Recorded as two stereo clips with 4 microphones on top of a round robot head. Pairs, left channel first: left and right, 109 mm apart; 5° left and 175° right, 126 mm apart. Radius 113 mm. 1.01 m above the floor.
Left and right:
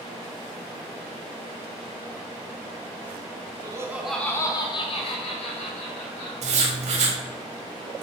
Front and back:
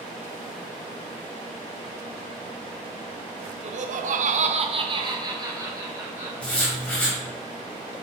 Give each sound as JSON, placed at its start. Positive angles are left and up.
{"t": 3.6, "sound": "laughter", "azimuth_deg": -145, "distance_m": 1.0}
{"t": 6.4, "sound": "writing", "azimuth_deg": -80, "distance_m": 1.6}